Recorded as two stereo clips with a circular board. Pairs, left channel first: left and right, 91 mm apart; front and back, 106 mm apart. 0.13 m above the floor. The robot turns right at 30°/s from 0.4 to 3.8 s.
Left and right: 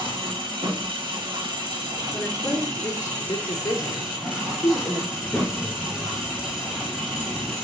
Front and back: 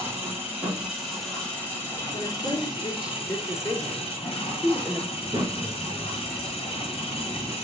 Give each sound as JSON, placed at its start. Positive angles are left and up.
{"t": 0.0, "sound": "an engine running", "azimuth_deg": -110, "distance_m": 5.0}
{"t": 2.1, "sound": "a woman speaking", "azimuth_deg": 15, "distance_m": 3.0}
{"t": 5.1, "sound": "a child speaking", "azimuth_deg": 160, "distance_m": 0.7}